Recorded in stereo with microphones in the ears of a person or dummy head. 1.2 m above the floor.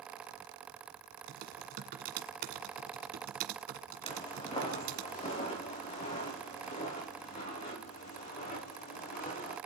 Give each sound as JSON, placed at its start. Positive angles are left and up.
{"t": 1.3, "sound": "typing on a keyboard", "side_deg": -50, "distance_m": 1.8}
{"t": 4.0, "sound": "footsteps", "side_deg": 30, "distance_m": 8.5}